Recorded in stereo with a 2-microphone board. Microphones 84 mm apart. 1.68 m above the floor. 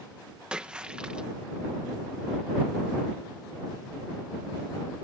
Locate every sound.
0.5 s a splash: 10° right (ahead or behind)